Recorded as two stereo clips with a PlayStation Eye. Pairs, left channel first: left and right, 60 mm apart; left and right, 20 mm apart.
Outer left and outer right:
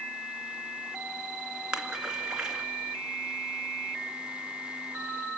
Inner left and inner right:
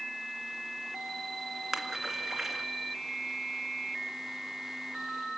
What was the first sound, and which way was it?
A splash, 10° right (ahead or behind).